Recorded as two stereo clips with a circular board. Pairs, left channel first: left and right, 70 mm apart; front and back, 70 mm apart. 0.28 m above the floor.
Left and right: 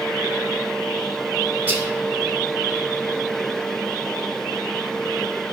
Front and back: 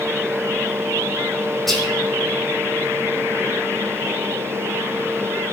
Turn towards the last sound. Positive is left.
turn(degrees=-85)